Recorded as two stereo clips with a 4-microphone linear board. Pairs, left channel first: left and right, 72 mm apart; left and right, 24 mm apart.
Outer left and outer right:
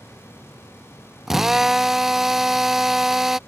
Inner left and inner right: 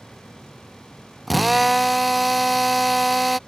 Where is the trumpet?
I don't hear a trumpet.